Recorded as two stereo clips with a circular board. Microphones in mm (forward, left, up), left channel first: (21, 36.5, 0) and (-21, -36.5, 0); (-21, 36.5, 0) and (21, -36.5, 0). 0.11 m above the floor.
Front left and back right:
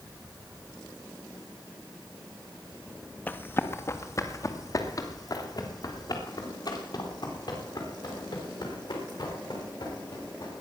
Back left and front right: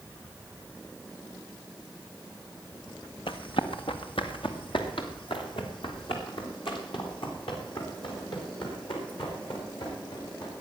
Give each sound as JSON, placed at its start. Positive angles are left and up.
{"t": 3.3, "sound": "running footsteps", "azimuth_deg": 130, "distance_m": 1.3}